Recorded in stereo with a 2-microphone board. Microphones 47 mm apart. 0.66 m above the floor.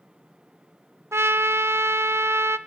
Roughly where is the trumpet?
Right.